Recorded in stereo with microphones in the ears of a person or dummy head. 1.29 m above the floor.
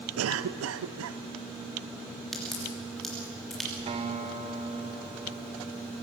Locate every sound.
0.2 s a cough: 65° right (ahead or behind), 0.7 m
2.3 s a crack: centre (ahead or behind), 3 m
3.9 s a guitar: 25° right (ahead or behind), 2 m